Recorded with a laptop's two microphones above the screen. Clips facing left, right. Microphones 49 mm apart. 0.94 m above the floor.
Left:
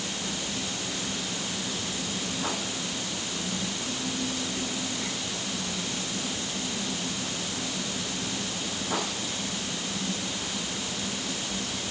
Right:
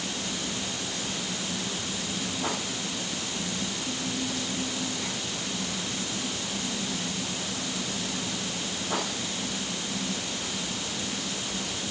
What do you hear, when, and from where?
Only background noise.